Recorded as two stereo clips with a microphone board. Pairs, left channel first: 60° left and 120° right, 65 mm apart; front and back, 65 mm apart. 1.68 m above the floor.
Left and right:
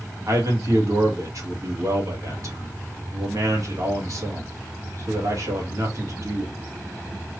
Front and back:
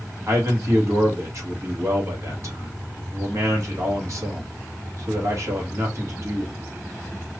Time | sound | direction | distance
0.3 | a man speaking | 150° right | 1.8 m